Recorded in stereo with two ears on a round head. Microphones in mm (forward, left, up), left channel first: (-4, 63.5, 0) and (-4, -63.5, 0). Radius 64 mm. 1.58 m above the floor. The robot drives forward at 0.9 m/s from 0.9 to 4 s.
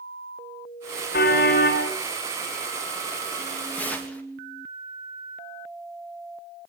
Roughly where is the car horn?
Left.